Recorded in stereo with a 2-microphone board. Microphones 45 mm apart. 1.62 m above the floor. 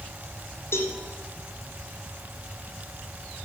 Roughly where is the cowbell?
Left.